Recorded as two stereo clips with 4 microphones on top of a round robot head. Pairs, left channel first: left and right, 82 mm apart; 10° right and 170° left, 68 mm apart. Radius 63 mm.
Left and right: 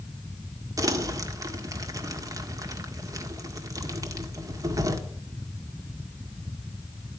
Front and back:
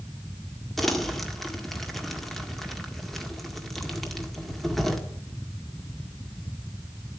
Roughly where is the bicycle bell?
No bicycle bell in this recording.